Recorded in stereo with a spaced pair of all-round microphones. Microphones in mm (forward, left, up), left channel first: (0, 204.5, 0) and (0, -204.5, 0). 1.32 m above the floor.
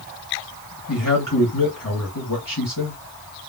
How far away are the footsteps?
No footsteps in this recording.